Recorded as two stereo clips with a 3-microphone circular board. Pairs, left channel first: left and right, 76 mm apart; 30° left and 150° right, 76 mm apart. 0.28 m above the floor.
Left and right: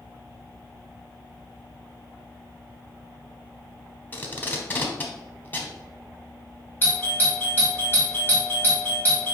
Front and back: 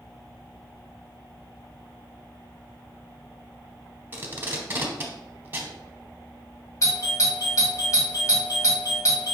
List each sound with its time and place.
4.1 s tape being pulled: 150° left, 0.9 m
6.8 s a doorbell: 40° left, 2.0 m